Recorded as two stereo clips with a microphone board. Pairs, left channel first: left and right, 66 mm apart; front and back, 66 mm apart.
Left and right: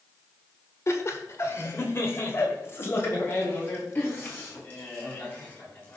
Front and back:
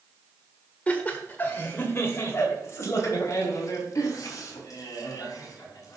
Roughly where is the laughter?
Ahead left.